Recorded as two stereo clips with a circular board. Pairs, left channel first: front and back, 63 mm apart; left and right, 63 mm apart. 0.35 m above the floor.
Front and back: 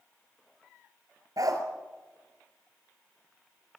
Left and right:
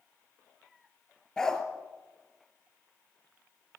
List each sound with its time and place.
1.4 s a dog barking: 170° left, 2 m